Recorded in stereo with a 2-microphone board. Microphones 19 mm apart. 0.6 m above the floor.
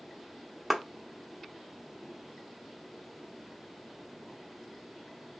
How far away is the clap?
About 0.8 m.